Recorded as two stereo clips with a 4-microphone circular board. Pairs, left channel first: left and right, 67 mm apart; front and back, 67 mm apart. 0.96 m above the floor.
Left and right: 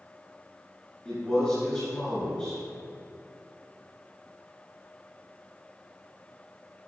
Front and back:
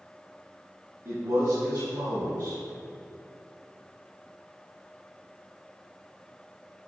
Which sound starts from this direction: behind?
A man speaking, at 1.1 s.